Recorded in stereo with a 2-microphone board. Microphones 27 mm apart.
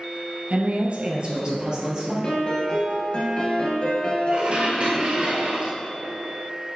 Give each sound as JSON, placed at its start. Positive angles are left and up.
{"t": 0.5, "sound": "a woman speaking", "side_deg": -45, "distance_m": 1.6}
{"t": 2.2, "sound": "a piano", "side_deg": 40, "distance_m": 2.0}
{"t": 4.3, "sound": "dishes clattering", "side_deg": -45, "distance_m": 1.5}